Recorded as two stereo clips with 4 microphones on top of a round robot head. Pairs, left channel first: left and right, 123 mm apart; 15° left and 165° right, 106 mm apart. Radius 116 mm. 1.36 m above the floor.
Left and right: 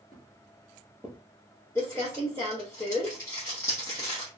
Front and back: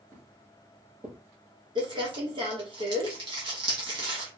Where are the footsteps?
135° left, 1.6 m; by 1.2 s 170° right, 1.6 m.